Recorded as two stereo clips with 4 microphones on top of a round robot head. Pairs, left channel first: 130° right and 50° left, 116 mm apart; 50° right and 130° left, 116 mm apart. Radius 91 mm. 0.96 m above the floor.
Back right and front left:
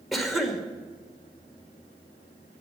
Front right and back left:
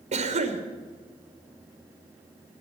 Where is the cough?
140° left, 2.5 m.